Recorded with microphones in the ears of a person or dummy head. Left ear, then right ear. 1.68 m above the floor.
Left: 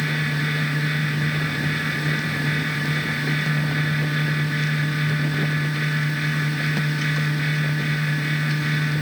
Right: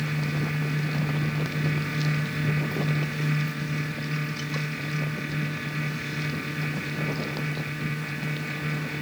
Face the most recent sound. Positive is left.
No sound to turn to.